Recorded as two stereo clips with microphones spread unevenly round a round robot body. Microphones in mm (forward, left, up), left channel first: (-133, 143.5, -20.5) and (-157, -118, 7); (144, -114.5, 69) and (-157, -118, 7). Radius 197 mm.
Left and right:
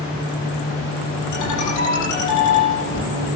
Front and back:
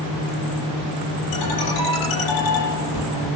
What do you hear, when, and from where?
1.3 s a ringtone: 40° left, 9.5 m